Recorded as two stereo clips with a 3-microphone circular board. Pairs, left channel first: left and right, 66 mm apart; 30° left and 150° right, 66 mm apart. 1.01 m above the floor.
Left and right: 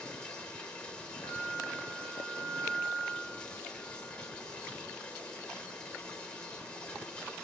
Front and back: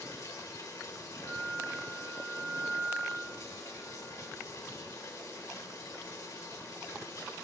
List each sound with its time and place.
0.0 s running water: 20° left, 1.2 m
1.2 s a flute: 60° left, 1.4 m